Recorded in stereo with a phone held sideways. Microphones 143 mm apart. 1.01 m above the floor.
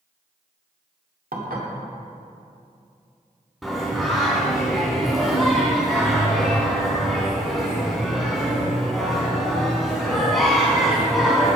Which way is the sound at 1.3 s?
80° right.